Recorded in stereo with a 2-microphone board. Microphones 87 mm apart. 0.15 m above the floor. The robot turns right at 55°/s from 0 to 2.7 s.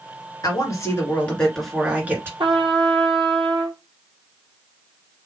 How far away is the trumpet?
About 0.9 m.